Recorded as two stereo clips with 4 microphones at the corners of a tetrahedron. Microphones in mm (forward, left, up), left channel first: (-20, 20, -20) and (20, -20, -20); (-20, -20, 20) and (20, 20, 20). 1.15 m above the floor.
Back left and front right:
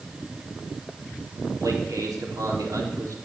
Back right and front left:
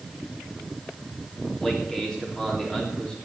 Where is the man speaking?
60° right, 3.5 m.